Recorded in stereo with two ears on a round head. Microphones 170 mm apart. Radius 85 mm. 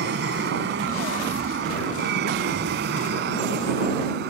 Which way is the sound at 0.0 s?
60° right (ahead or behind).